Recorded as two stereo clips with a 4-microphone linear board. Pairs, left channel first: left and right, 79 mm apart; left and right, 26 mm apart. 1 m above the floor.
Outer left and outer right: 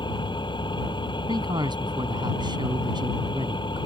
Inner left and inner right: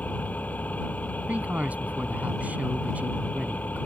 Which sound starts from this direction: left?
An engine running, at 0.0 s.